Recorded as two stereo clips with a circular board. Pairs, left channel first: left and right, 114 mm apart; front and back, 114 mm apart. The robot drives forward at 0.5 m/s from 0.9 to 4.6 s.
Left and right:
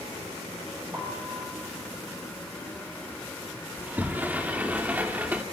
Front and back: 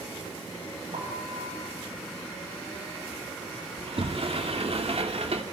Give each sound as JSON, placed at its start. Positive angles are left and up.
{"t": 0.9, "sound": "a piano", "azimuth_deg": -155, "distance_m": 5.0}
{"t": 3.8, "sound": "a sliding door", "azimuth_deg": -160, "distance_m": 1.9}